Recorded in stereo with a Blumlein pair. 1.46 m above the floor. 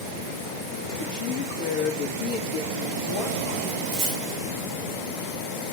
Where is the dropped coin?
35° right, 3 m.